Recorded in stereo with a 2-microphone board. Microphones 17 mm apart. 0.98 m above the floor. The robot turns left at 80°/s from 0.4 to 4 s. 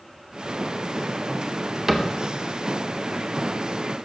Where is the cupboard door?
15° right (ahead or behind), 0.7 m; by 2.1 s 25° right (ahead or behind), 0.7 m.